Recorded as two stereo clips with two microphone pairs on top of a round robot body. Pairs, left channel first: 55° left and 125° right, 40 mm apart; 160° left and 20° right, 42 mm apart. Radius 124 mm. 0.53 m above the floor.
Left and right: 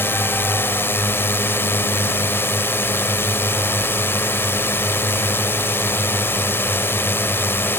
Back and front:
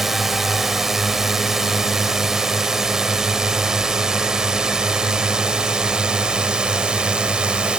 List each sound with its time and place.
0.0 s a drone: 65° left; by 7.8 s 50° left